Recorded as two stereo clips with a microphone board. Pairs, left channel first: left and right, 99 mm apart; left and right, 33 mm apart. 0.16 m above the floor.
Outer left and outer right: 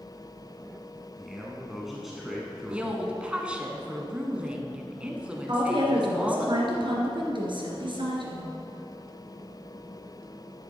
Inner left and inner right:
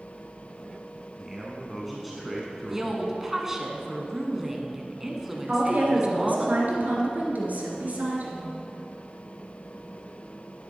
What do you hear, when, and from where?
1.2 s a man speaking: centre (ahead or behind), 1.3 m
2.7 s a woman speaking: 10° right (ahead or behind), 1.3 m
5.5 s a woman speaking: 60° right (ahead or behind), 2.5 m